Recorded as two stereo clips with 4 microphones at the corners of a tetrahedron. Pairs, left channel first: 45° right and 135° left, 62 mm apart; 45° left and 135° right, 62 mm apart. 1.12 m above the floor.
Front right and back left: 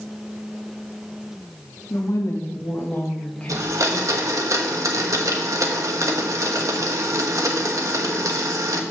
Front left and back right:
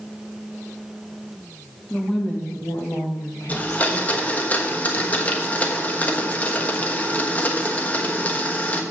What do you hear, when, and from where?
1.9 s a woman speaking: 25° right, 1.6 m; by 4.4 s 50° left, 2.5 m
3.5 s a blender: 110° left, 1.2 m